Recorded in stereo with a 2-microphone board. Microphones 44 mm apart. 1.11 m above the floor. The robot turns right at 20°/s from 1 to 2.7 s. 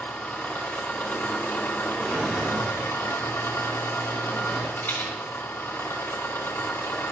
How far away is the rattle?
About 3 m.